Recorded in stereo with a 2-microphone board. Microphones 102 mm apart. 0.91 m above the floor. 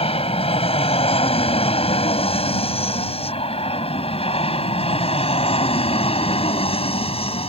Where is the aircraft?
65° left (ahead or behind).